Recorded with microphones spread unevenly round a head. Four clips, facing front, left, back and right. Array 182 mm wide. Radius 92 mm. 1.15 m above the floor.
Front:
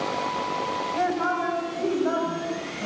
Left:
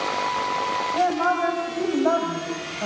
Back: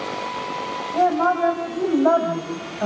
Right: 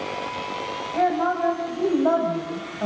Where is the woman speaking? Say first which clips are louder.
Right 1 dB, back 8 dB; 170° left, 7.5 m; by 2.9 s 175° right, 7 m.